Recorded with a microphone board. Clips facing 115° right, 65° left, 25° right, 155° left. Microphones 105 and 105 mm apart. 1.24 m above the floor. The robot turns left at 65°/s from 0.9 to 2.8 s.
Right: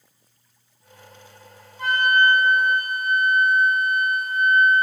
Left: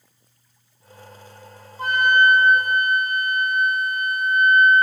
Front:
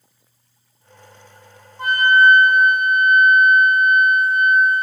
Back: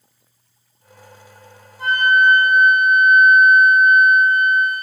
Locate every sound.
1.8 s a flute: 15° left, 4 m; by 4.8 s 50° right, 4 m